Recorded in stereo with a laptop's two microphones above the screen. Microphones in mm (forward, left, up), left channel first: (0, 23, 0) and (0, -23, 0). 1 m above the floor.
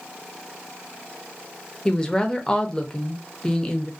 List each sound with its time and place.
1.9 s a woman speaking: 15° left (ahead or behind), 0.6 m